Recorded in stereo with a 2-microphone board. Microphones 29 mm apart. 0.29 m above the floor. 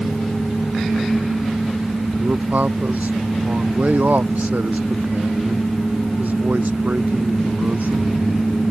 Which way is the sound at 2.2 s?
65° right (ahead or behind).